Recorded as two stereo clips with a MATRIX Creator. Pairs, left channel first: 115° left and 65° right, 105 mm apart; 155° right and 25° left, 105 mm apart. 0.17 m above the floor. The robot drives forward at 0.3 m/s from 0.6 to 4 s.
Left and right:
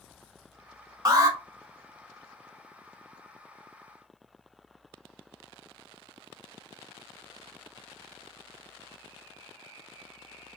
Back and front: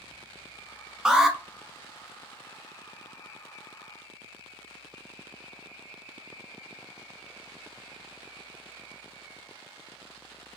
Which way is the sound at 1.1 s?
55° right.